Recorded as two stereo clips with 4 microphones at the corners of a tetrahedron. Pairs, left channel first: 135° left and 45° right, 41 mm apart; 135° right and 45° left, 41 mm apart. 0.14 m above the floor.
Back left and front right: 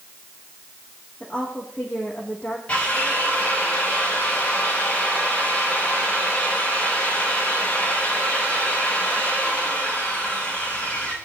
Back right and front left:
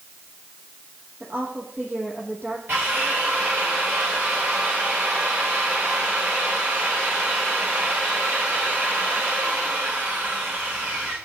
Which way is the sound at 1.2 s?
75° left.